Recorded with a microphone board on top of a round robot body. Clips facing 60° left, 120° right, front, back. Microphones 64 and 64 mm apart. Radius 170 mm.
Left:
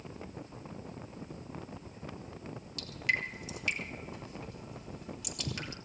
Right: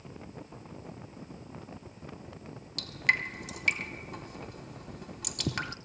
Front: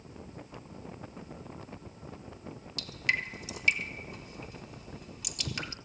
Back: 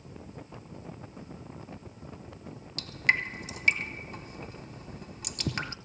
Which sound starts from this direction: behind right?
Dripping, at 2.8 s.